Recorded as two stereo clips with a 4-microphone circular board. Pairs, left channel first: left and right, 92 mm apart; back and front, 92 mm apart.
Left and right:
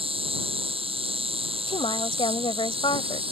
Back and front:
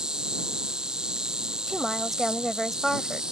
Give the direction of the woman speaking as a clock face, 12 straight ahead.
9 o'clock.